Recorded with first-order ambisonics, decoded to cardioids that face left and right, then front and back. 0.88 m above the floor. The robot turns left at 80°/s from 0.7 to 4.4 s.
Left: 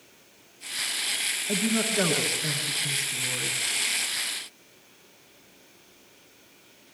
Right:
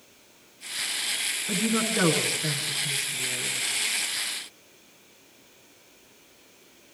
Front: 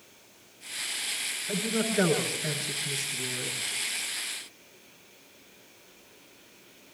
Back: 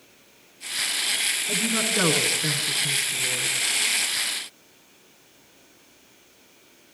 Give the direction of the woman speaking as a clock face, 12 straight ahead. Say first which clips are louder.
Right 1 dB, back 6 dB; 4 o'clock.